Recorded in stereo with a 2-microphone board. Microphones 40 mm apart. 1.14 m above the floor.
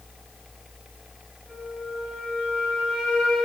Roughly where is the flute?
Centre.